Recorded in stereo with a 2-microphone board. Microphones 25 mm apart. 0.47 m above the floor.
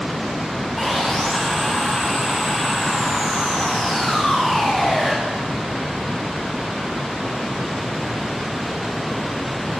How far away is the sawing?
About 6 m.